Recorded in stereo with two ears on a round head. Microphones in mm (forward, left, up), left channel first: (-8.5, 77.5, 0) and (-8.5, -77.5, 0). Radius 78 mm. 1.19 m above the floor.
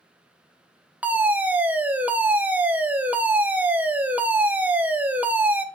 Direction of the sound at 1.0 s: 10° right (ahead or behind).